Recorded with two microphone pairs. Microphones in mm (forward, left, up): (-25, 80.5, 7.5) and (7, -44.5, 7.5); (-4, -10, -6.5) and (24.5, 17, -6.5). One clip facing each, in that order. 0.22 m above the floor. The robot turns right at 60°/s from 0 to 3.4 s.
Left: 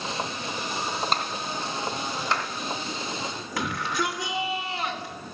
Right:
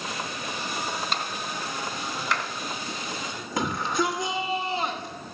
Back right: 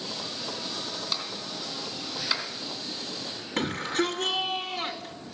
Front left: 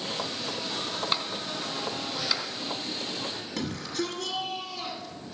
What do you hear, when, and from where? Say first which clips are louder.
1.1 s a clap: left 3 dB, front left 3 dB; 80° left, 1.9 m; by 2.5 s 160° left, 1.9 m
3.6 s a shout: right 3 dB, back right 6 dB; 125° right, 1.3 m